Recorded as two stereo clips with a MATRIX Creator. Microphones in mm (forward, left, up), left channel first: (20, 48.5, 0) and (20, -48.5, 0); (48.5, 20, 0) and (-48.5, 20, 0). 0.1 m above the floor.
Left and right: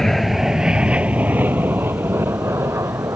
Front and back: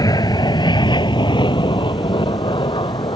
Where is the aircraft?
5° left; by 3.2 s 30° right.